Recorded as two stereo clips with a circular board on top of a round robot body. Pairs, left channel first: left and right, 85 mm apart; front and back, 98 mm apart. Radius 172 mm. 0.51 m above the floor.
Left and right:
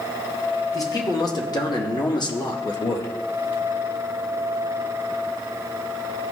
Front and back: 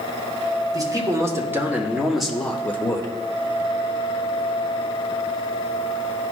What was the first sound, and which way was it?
A man speaking, 130° left.